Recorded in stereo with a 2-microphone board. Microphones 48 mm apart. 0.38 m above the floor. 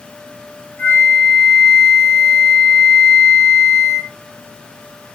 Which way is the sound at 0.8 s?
45° left (ahead or behind).